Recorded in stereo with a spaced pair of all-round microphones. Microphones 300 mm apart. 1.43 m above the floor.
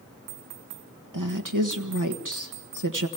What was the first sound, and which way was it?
A woman speaking, 75° right (ahead or behind).